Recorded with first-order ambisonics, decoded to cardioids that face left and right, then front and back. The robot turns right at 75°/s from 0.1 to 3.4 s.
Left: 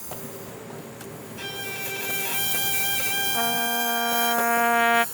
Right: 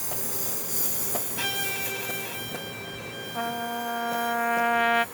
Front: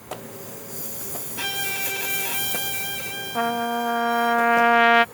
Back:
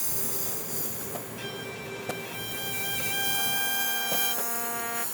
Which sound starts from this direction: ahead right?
A violin, at 1.4 s.